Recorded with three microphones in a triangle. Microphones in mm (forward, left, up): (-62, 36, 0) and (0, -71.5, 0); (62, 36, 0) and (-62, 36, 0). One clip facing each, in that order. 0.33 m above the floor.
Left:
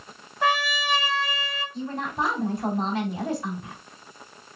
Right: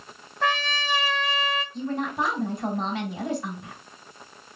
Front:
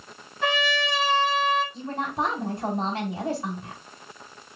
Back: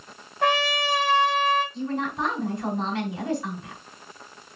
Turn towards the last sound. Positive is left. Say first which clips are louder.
# left 2 dB, back 1 dB
turn(degrees=35)